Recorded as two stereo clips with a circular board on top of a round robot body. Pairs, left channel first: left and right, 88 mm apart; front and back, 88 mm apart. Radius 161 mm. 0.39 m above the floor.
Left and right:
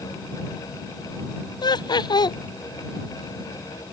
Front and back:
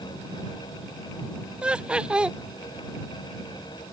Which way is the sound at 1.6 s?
105° left.